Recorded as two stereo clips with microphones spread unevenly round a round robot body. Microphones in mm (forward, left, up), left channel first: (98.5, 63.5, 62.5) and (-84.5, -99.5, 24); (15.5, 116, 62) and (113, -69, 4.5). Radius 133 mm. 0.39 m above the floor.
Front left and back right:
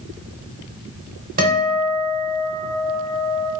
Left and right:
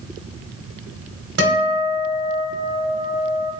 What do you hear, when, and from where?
1.4 s a guitar: 85° right, 1.0 m